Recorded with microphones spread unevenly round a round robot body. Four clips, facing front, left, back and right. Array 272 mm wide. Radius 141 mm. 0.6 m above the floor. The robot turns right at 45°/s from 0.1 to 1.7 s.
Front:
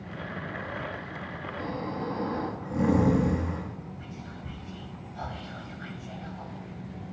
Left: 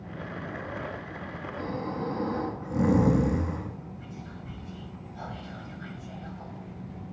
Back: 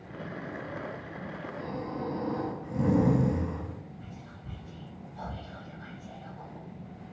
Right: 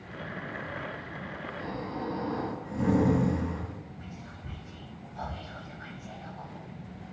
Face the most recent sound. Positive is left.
turn(degrees=-45)